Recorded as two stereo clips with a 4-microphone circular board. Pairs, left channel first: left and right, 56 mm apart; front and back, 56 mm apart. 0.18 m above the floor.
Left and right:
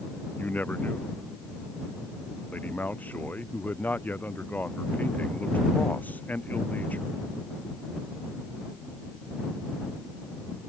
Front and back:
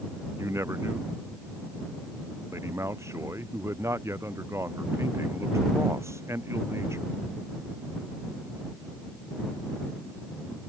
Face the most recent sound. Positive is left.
turn(degrees=150)